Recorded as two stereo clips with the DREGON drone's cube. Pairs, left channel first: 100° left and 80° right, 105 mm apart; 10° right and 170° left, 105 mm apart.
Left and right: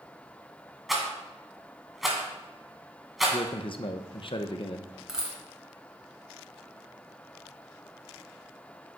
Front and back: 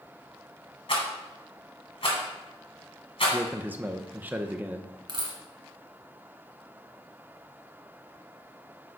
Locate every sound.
0.9 s a rattle: 10° left, 1.8 m
3.3 s a man speaking: 100° left, 0.5 m
5.1 s a dropped coin: 160° right, 1.5 m